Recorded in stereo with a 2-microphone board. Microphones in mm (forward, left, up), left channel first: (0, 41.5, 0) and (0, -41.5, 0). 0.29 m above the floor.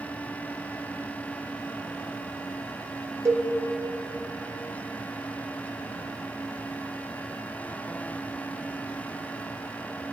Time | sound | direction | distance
3.2 | a cowbell | 35° right (ahead or behind) | 2 m